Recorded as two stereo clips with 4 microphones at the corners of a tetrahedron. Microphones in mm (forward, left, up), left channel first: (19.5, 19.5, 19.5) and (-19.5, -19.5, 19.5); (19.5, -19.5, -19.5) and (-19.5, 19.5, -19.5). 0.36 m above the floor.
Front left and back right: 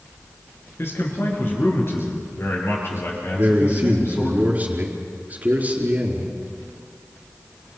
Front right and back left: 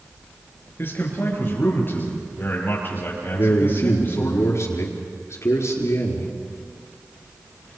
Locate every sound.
0.8 s a man speaking: 5° left, 6 m
3.3 s a man speaking: 75° right, 4.5 m